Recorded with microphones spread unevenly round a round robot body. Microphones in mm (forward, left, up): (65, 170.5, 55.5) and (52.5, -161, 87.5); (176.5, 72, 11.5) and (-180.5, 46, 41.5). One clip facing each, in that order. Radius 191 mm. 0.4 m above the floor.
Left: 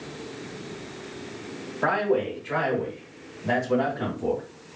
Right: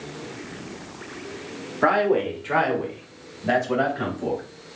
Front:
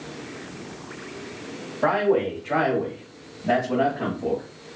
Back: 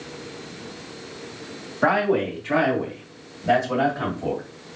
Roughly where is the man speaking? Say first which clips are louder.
Right 3 dB, even; behind right.